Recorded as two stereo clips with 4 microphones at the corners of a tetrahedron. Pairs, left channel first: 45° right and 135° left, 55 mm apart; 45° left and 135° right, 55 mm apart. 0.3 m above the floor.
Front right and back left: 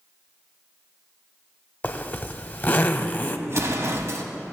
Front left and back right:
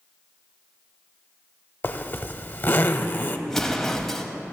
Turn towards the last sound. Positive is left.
turn(degrees=125)